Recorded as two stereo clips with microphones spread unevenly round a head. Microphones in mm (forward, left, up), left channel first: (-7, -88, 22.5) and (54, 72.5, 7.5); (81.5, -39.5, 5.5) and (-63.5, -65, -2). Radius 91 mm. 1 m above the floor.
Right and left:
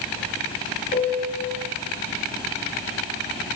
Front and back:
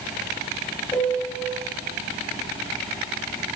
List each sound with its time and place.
0.9 s a piano: 65° right, 6 m